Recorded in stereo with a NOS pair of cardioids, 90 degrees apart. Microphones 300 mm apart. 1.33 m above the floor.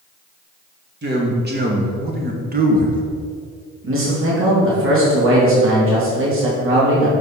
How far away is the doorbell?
I don't hear a doorbell.